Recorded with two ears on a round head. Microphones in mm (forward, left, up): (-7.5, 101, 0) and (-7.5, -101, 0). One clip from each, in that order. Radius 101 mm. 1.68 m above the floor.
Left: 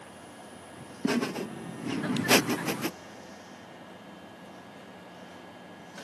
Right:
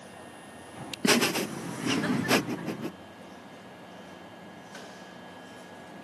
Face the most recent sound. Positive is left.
turn(degrees=65)  # may be behind; listen again after turning